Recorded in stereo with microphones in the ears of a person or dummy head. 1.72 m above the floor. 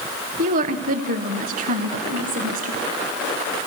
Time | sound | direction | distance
0.4 | a woman speaking | 45° right (ahead or behind) | 0.9 m